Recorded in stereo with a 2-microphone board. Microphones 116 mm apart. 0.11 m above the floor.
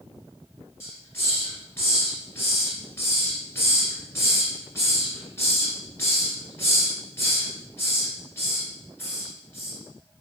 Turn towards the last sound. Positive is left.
turn(degrees=25)  # may be behind; listen again after turning